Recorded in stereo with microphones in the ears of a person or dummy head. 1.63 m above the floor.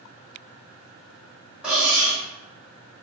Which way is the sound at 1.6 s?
5° right (ahead or behind).